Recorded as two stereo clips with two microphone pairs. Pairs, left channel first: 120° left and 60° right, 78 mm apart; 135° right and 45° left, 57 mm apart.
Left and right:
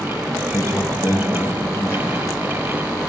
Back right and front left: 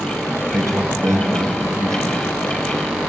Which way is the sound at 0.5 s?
55° left.